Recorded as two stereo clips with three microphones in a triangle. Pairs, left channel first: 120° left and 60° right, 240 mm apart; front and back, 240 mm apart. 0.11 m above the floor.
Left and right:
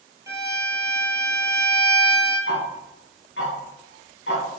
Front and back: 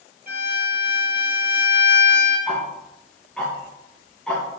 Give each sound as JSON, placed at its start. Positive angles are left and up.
{"t": 0.3, "sound": "a violin", "azimuth_deg": -135, "distance_m": 3.5}
{"t": 2.5, "sound": "ticking", "azimuth_deg": 85, "distance_m": 3.5}